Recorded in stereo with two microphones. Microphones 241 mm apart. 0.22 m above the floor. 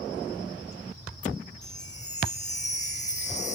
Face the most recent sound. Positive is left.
turn(degrees=30)  # may be behind; listen again after turning